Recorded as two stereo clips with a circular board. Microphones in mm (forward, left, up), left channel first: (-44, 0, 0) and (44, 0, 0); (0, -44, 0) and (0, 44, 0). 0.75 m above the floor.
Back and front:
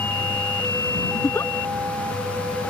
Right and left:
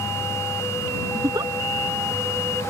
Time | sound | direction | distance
1.1 | a giggle | 125° left | ?